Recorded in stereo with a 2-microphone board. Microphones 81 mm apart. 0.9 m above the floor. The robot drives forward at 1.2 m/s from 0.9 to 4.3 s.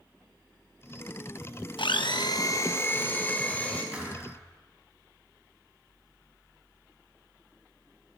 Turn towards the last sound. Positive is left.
turn(degrees=-15)  # may be behind; listen again after turning